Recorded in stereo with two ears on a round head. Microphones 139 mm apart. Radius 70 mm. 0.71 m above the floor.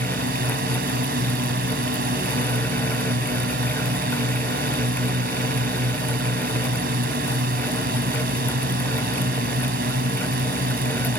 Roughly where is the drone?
Right.